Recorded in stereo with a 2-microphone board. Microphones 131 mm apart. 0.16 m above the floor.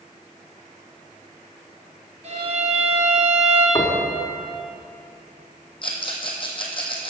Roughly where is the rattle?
Left.